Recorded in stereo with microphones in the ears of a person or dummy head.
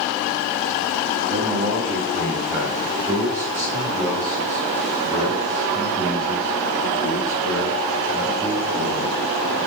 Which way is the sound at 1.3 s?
25° right (ahead or behind).